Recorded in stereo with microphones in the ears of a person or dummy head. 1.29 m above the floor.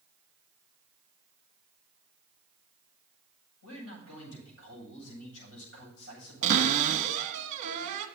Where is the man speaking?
80° left, 7.5 m.